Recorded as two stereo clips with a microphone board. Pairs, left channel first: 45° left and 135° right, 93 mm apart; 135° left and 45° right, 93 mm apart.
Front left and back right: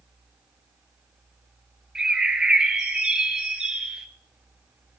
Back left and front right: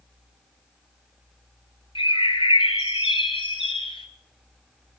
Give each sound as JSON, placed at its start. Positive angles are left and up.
{"t": 1.9, "sound": "a bird", "azimuth_deg": 145, "distance_m": 0.9}